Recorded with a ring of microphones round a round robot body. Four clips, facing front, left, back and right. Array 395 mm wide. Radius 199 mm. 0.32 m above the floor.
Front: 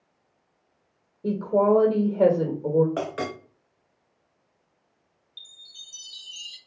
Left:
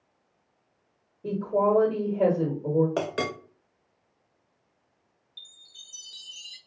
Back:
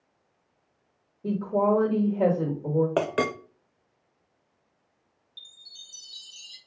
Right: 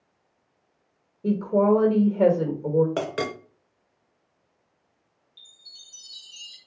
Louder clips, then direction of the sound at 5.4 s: Left 3 dB, front 2 dB; 70° left.